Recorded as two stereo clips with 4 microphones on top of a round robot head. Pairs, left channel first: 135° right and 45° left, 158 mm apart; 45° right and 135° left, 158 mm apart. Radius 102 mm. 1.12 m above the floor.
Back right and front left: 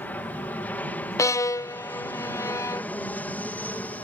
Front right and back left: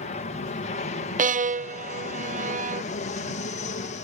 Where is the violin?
160° left.